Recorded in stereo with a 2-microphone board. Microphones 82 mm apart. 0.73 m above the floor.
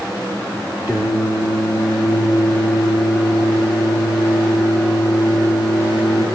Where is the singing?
20° right (ahead or behind), 8 m.